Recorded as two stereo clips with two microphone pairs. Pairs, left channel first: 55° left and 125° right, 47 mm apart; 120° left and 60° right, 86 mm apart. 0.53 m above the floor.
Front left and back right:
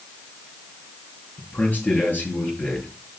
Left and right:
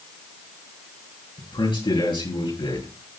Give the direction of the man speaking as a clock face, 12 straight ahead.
8 o'clock.